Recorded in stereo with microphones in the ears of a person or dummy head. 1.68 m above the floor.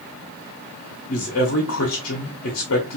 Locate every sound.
1.1 s a man speaking: 65° left (ahead or behind), 0.8 m